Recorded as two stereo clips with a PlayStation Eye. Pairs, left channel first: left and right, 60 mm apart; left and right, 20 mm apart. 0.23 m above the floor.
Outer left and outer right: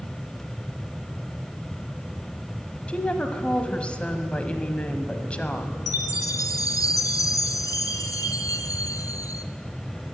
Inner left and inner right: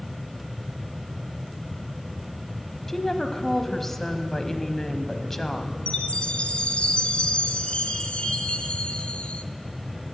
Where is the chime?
80° left, 0.8 m.